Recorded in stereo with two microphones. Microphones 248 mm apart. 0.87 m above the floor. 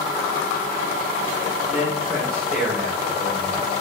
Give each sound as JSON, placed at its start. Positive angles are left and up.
{"t": 1.7, "sound": "a man speaking", "side_deg": 0, "distance_m": 4.5}